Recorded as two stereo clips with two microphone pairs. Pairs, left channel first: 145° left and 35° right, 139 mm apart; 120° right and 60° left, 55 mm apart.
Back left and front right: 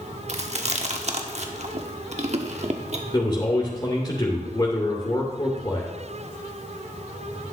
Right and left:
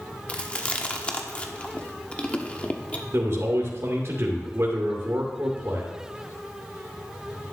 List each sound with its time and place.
0.3 s chewing: 60° right, 1.1 m
3.1 s a man speaking: 90° left, 2 m